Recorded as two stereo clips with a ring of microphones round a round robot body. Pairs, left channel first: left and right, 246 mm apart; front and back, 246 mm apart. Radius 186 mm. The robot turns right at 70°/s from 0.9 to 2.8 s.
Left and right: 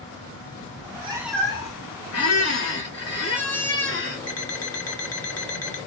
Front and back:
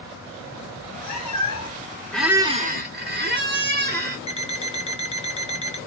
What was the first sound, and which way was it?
A cat meowing, 30° right.